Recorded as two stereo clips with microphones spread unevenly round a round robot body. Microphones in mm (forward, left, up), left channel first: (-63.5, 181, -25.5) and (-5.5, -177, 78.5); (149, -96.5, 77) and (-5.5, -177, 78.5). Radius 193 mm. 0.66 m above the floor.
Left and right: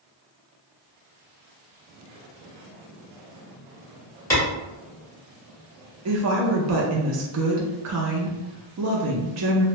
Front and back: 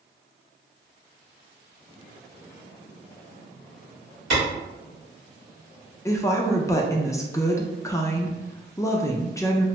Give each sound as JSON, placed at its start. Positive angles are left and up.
{"t": 4.3, "sound": "a clap", "azimuth_deg": 180, "distance_m": 1.6}
{"t": 6.0, "sound": "a woman speaking", "azimuth_deg": -35, "distance_m": 0.5}